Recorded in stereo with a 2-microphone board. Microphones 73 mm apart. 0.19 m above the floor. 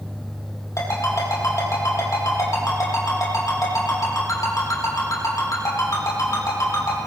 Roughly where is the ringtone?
Left.